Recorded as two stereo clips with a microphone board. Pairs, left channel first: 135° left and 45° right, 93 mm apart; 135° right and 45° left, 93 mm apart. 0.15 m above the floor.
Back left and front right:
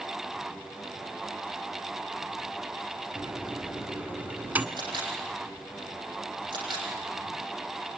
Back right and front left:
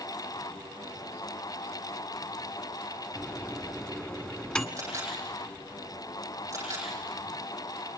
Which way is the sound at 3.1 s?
75° right.